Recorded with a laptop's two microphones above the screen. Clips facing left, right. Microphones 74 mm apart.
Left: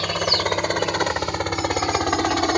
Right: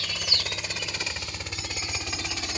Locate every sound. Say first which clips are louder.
0.0 s a helicopter: left 12 dB; 55° left (ahead or behind); by 2.6 s 60° left (ahead or behind)